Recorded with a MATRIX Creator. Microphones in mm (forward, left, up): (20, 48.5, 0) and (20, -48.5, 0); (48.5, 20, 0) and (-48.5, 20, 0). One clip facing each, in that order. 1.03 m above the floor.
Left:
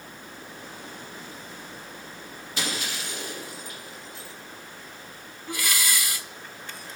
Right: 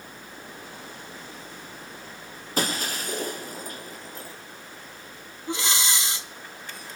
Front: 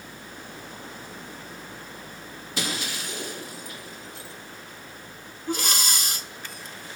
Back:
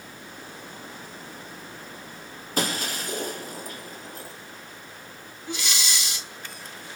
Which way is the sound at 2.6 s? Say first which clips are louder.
Right 4 dB, back 4 dB; 135° right.